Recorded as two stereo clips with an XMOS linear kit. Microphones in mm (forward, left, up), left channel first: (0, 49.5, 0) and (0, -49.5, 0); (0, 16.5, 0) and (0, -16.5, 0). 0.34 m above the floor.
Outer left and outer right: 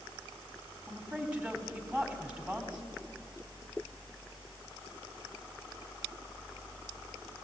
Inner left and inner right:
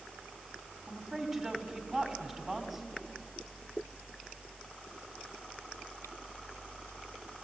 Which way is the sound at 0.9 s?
15° right (ahead or behind).